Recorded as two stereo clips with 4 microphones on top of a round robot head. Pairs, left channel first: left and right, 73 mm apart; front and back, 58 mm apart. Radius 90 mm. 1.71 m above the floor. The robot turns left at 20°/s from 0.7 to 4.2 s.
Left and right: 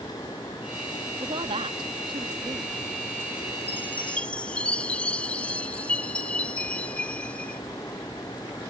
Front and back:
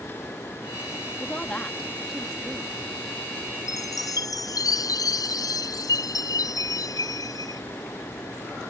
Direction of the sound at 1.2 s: 70° right.